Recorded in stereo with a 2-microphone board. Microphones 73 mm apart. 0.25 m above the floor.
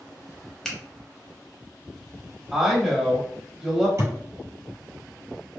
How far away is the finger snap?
About 0.8 m.